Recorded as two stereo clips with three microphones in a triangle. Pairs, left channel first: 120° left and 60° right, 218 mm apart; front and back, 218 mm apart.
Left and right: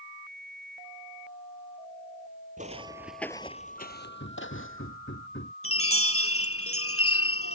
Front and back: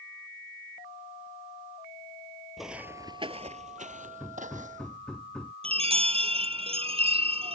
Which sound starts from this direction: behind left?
A chime, at 5.6 s.